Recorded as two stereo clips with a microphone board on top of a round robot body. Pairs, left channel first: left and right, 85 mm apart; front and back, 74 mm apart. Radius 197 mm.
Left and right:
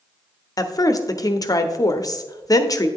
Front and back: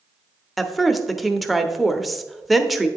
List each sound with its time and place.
0.6 s a woman speaking: 90° left, 1.0 m